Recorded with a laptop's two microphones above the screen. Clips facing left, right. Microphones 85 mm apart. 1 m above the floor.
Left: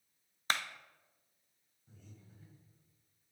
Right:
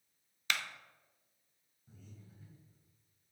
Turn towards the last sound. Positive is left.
turn(degrees=-5)  # may be behind; listen again after turning